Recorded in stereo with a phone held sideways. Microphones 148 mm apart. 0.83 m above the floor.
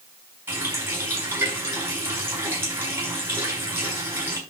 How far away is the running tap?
About 5.5 m.